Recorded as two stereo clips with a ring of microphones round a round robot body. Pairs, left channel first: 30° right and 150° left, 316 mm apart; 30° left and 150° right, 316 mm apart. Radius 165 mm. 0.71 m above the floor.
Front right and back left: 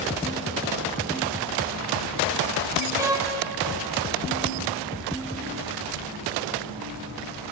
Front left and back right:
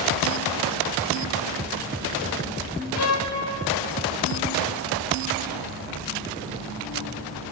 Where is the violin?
70° left, 3.5 m.